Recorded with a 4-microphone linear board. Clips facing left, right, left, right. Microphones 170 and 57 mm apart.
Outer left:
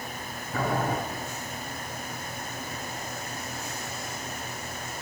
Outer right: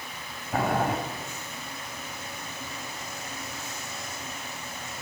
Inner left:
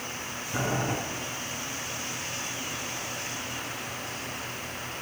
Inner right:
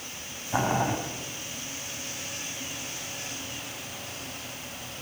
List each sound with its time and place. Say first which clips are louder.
0.5 s boiling: outer right 2 dB, inner right 4 dB; 75° right (ahead or behind), 3.5 m